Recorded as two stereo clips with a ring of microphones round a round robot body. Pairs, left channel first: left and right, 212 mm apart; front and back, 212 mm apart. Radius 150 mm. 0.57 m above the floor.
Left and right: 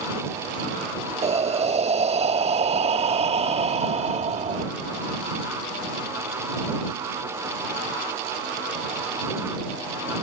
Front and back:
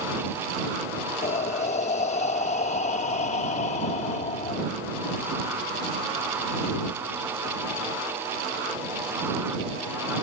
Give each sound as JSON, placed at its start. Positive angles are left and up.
{"t": 1.2, "sound": "breathing", "azimuth_deg": -45}